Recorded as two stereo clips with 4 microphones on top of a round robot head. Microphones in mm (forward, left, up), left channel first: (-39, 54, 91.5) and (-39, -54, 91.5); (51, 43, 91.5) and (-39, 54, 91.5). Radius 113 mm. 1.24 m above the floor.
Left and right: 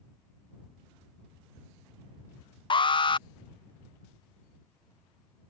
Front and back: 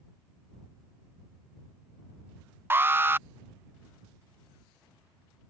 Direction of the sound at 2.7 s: 110° left.